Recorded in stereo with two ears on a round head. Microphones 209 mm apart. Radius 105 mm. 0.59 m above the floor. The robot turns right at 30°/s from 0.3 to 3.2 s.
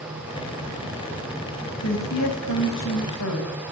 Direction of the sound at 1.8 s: 60° left.